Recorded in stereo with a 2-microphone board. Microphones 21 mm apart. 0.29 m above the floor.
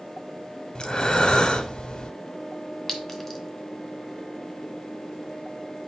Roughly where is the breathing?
Left.